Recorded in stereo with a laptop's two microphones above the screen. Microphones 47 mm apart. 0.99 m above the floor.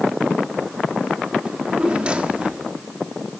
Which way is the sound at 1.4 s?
25° right (ahead or behind).